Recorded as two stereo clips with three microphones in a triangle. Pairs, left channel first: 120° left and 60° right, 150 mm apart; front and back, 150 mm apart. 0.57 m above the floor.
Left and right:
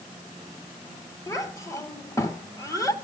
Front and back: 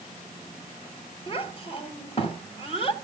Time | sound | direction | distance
1.3 | a child speaking | 50° left | 2 m